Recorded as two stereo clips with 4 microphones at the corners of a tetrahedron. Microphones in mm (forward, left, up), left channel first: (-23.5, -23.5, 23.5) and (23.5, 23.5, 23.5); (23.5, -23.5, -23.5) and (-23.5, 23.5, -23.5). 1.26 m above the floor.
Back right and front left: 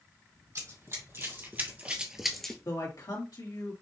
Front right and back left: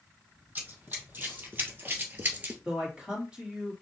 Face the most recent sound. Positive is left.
turn(degrees=-150)